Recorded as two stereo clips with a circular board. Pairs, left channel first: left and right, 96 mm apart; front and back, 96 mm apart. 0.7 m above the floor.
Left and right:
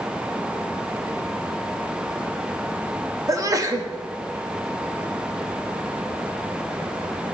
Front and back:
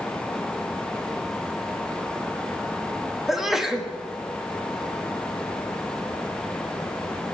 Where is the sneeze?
95° right, 1.2 m.